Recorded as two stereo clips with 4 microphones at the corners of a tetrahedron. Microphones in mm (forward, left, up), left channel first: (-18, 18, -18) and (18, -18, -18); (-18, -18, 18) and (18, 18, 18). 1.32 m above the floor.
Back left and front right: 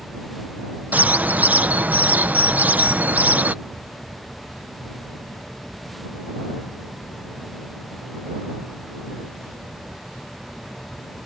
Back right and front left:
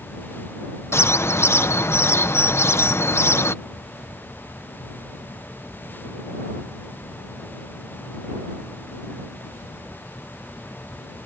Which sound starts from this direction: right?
A bird, at 0.9 s.